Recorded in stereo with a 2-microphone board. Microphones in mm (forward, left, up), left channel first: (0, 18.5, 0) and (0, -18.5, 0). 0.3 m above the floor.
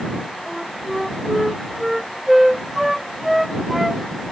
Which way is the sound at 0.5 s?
5° right (ahead or behind).